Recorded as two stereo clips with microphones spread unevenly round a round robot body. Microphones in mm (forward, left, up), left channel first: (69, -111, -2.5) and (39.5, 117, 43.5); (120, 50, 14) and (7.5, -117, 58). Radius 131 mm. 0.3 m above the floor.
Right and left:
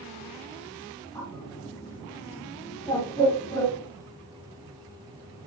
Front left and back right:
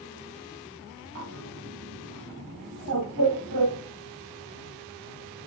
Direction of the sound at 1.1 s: 165° right.